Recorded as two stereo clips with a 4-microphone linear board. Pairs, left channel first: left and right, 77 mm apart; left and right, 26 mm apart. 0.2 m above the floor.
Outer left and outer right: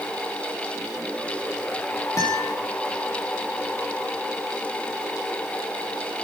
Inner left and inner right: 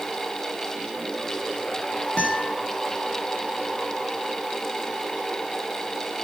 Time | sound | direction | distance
2.2 | a guitar | 40° left (ahead or behind) | 4.5 m